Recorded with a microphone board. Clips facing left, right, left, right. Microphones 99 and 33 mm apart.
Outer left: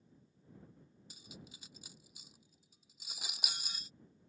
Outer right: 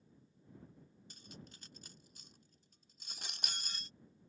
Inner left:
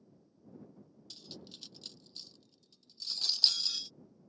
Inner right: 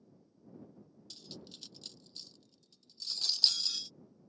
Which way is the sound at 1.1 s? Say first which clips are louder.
Even, even; 5° left (ahead or behind).